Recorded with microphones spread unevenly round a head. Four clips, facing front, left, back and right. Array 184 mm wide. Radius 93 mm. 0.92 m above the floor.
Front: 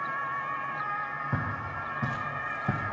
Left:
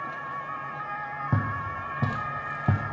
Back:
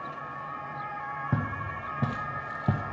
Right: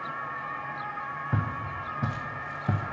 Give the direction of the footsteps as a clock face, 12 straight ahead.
8 o'clock.